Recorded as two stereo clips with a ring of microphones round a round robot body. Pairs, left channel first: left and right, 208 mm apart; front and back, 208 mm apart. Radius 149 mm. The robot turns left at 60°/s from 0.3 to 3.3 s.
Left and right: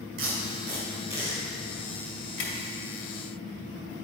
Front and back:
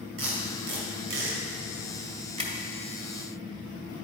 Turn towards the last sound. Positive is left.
turn(degrees=65)